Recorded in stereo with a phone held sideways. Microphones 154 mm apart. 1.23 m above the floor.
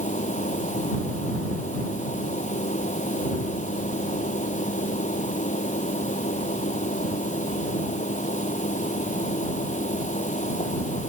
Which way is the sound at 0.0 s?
55° left (ahead or behind).